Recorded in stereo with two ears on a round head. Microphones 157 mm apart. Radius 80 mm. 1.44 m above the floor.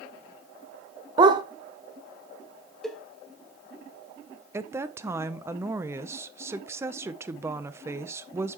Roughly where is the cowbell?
Centre.